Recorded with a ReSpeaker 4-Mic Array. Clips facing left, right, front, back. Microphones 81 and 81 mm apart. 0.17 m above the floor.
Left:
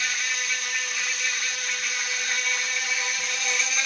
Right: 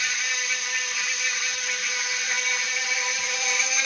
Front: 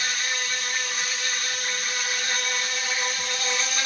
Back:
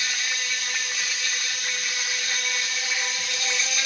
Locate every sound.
0.0 s an insect: 5° right, 1.3 m